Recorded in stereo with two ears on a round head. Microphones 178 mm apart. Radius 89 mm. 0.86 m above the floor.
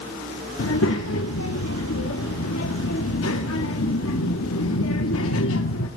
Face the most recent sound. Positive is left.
turn(degrees=75)  # may be behind; listen again after turning